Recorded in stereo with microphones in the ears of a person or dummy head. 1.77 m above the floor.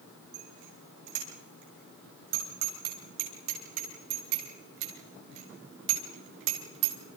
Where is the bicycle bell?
65° right (ahead or behind), 10 m; by 7.0 s 80° right, 3.5 m.